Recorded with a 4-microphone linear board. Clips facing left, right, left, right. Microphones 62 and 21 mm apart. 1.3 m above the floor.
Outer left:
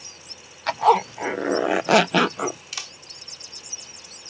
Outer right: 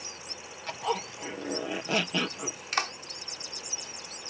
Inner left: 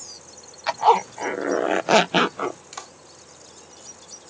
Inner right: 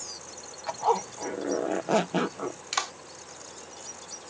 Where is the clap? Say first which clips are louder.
Outer right 8 dB, inner right 8 dB; 50° right (ahead or behind).